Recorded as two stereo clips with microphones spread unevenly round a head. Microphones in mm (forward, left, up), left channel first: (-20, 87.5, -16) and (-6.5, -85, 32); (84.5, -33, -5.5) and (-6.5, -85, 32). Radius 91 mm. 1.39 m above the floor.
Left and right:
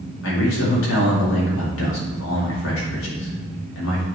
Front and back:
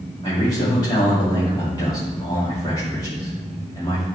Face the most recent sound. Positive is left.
turn(degrees=100)